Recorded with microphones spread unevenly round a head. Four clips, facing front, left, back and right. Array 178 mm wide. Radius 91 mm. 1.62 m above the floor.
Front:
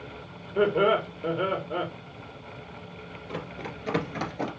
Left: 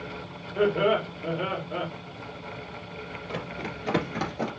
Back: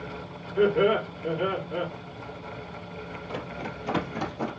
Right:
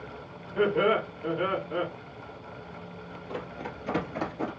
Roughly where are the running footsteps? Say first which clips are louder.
Left 1 dB, even; left.